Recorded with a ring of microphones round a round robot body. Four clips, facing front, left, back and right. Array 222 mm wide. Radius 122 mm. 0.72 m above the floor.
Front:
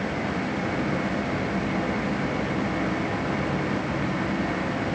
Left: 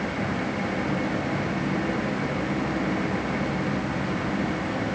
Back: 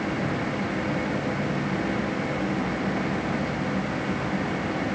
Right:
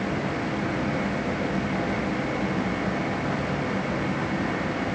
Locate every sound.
Only background noise.